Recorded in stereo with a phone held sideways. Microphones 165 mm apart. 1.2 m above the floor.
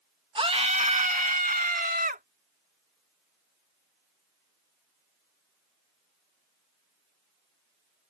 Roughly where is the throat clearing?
No throat clearing in this recording.